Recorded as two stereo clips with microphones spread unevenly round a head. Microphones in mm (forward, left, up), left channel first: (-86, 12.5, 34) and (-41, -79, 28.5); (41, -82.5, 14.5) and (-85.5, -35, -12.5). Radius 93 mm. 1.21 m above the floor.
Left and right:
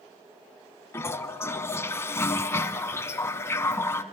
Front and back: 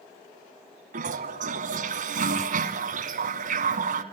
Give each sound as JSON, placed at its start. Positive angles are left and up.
{"t": 0.9, "sound": "a toilet flushing", "azimuth_deg": 170, "distance_m": 1.6}